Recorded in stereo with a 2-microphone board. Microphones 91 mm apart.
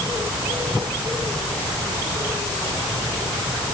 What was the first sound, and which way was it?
Only background noise.